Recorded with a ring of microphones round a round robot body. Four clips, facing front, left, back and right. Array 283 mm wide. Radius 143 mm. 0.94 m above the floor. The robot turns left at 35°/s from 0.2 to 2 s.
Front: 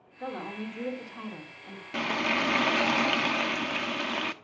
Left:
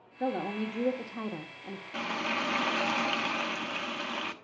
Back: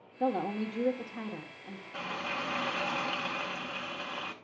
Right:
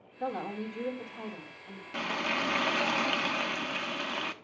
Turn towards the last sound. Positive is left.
turn(degrees=-5)